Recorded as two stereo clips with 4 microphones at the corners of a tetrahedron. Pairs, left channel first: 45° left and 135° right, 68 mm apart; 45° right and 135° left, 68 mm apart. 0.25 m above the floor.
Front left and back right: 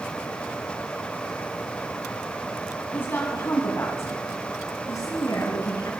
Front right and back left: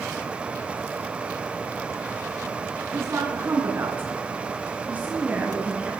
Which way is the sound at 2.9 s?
100° left.